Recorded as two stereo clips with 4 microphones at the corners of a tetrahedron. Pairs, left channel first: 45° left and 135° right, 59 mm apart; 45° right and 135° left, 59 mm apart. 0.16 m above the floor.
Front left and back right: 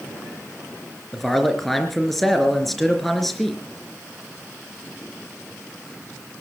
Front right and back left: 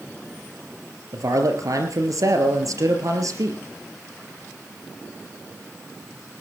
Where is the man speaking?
130° left, 3.5 m.